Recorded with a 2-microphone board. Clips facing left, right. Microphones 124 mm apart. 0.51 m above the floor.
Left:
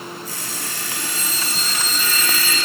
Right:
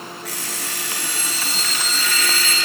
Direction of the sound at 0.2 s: 75° right (ahead or behind).